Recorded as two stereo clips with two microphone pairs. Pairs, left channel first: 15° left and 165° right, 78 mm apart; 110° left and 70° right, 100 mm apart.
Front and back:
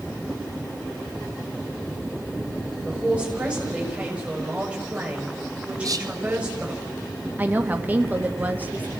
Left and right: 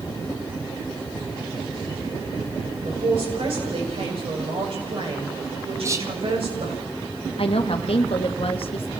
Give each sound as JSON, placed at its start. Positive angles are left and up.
{"t": 2.9, "sound": "a man speaking", "azimuth_deg": -90, "distance_m": 6.5}
{"t": 5.8, "sound": "whispering", "azimuth_deg": -130, "distance_m": 0.8}
{"t": 7.4, "sound": "a woman speaking", "azimuth_deg": 130, "distance_m": 1.8}